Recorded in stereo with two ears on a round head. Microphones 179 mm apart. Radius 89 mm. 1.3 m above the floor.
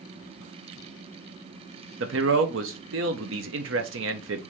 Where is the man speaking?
70° right (ahead or behind), 1.0 m.